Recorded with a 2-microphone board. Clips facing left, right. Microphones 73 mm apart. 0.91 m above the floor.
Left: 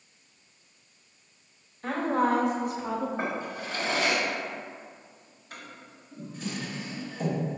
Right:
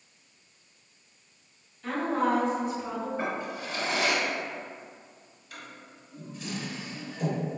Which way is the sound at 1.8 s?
45° left (ahead or behind).